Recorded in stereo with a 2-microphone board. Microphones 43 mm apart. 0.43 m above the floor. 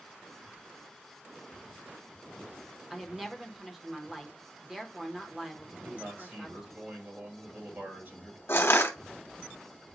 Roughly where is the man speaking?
Right.